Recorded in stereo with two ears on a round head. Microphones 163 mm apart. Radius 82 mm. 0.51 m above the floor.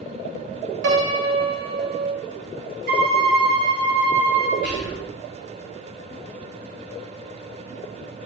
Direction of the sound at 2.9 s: 50° right (ahead or behind).